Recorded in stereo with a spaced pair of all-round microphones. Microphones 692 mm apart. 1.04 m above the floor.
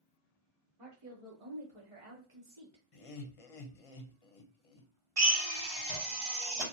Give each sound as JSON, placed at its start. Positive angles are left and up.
{"t": 0.8, "sound": "a woman speaking", "side_deg": -40, "distance_m": 1.3}
{"t": 2.9, "sound": "laughter", "side_deg": 50, "distance_m": 0.7}
{"t": 5.2, "sound": "a drill", "side_deg": -45, "distance_m": 1.5}